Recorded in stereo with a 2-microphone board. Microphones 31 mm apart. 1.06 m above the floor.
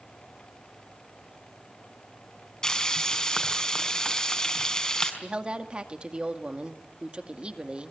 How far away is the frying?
About 4.5 m.